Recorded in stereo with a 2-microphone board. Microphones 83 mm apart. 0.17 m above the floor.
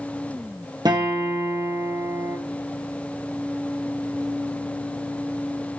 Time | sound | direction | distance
0.8 | a guitar | 60° right (ahead or behind) | 1.2 m